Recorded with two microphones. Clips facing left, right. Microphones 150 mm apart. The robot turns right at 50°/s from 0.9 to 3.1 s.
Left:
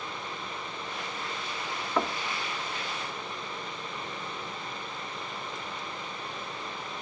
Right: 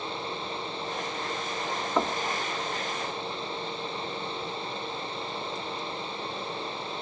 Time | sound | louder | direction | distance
2.0 | knocking | right 2 dB | 10° right (ahead or behind) | 1.3 m